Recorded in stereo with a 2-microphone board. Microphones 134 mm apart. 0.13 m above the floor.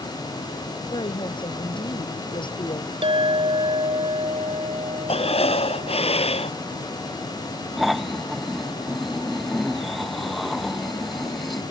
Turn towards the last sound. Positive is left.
turn(degrees=0)  # may be behind; listen again after turning